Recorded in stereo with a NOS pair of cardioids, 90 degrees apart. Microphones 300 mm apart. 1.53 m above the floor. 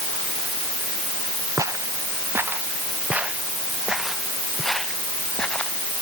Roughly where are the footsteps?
Ahead.